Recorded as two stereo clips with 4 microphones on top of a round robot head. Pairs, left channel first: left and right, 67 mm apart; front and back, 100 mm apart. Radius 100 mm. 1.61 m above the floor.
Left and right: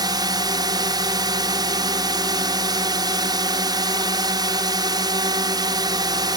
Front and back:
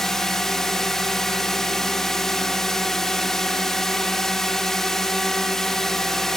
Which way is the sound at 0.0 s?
85° right.